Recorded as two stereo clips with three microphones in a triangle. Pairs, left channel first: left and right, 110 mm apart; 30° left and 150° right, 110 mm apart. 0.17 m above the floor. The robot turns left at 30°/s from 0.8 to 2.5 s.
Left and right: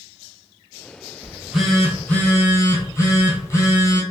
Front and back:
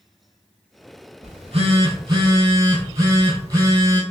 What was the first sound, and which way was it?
A phone buzzing, 170° right.